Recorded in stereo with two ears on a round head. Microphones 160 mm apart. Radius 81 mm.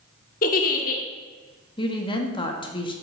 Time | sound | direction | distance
0.4 | a giggle | 50° left (ahead or behind) | 1.4 m
1.8 | a woman speaking | 30° left (ahead or behind) | 1.6 m